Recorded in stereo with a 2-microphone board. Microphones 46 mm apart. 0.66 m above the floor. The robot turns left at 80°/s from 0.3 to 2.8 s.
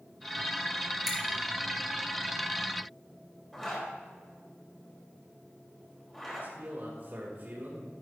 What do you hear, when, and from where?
1.1 s a finger snap: 10° right (ahead or behind), 3.5 m; by 1.2 s 20° right (ahead or behind), 3.5 m
3.5 s a zipper: 5° left (ahead or behind), 3 m
6.4 s a man speaking: 50° right (ahead or behind), 2.5 m